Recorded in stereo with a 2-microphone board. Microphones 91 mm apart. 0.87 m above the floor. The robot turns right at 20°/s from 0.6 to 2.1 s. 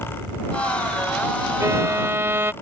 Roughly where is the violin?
Right.